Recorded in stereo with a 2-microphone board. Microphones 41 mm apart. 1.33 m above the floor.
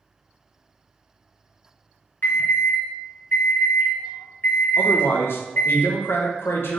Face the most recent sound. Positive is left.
turn(degrees=65)  # may be behind; listen again after turning